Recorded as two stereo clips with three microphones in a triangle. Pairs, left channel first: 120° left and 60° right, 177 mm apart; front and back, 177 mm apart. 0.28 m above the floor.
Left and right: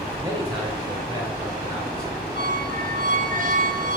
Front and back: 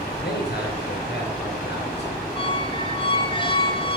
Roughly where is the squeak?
Ahead right.